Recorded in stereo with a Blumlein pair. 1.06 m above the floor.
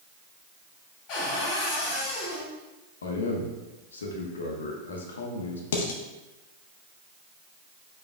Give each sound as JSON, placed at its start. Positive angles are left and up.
{"t": 1.1, "sound": "a cupboard door", "azimuth_deg": 40, "distance_m": 1.6}
{"t": 3.0, "sound": "a man speaking", "azimuth_deg": 65, "distance_m": 0.8}
{"t": 5.7, "sound": "dishes clattering", "azimuth_deg": 60, "distance_m": 0.6}